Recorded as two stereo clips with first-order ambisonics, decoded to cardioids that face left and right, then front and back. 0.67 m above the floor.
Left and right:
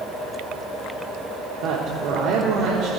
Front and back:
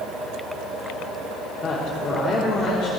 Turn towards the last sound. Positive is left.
turn(degrees=-75)